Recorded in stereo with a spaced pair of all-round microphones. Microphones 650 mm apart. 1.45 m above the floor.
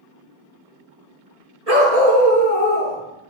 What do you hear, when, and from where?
1.7 s a dog barking: 70° right (ahead or behind), 5.5 m